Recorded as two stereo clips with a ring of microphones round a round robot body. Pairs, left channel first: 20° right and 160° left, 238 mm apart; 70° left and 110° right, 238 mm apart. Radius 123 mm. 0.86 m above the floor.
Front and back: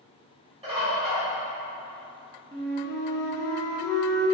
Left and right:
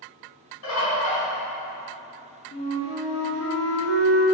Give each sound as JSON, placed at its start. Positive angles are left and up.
{"t": 0.6, "sound": "a bird", "azimuth_deg": 90, "distance_m": 1.9}
{"t": 2.5, "sound": "a flute", "azimuth_deg": 55, "distance_m": 0.9}